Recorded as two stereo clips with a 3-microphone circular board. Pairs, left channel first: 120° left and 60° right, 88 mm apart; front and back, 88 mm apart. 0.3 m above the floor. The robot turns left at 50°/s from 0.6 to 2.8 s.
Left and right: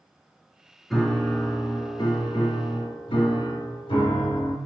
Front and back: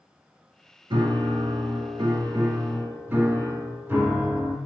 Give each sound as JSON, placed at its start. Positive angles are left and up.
{"t": 0.9, "sound": "a piano", "azimuth_deg": -150, "distance_m": 0.6}